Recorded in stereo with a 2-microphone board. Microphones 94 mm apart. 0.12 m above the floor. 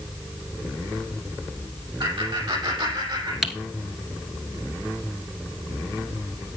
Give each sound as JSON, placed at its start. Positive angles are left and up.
{"t": 2.0, "sound": "laughter", "side_deg": -60, "distance_m": 4.5}
{"t": 3.4, "sound": "typing on a keyboard", "side_deg": -5, "distance_m": 1.1}